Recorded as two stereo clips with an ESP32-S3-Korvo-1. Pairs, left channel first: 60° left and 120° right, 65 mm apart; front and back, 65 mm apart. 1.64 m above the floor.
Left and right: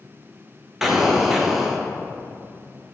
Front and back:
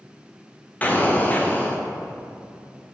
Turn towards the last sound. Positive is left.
turn(degrees=-40)